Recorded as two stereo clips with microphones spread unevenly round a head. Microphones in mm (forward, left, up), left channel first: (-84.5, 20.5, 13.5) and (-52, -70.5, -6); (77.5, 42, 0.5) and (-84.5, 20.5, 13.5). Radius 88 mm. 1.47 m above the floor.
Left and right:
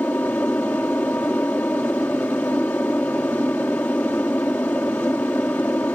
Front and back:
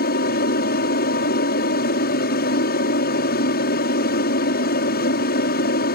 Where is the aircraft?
30° left.